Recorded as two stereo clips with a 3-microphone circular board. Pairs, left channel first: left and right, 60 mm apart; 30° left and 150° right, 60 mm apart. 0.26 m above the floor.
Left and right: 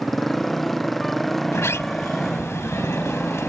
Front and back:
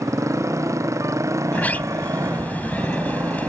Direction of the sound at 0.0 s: Straight behind.